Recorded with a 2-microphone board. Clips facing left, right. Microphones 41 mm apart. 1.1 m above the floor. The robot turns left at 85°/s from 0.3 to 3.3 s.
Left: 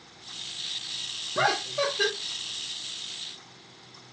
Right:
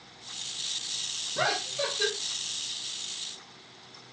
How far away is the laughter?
About 1.0 m.